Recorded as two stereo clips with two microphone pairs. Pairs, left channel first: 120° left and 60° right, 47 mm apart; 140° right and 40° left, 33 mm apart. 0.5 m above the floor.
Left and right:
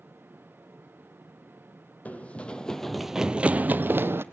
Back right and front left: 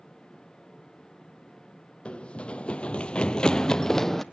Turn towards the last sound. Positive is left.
turn(degrees=-65)